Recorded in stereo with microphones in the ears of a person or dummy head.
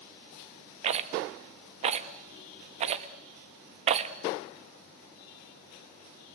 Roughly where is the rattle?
Right.